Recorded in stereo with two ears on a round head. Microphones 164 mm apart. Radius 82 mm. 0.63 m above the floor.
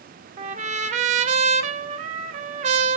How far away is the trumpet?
About 0.6 m.